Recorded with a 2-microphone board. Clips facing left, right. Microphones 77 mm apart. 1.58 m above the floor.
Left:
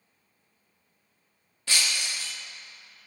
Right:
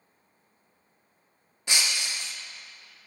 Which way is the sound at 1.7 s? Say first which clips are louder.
Even; 20° right (ahead or behind).